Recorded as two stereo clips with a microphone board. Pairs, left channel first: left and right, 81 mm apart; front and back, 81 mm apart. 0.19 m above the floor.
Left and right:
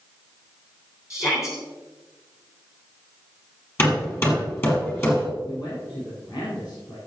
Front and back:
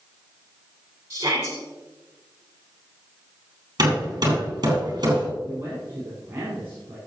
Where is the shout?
135° left, 3.5 m.